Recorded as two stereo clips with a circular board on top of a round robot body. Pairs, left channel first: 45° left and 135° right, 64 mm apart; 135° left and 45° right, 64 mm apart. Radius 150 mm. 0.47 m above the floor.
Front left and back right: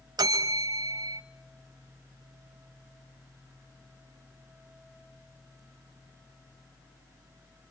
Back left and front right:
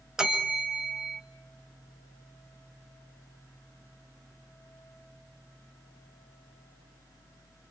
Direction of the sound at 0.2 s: 125° right.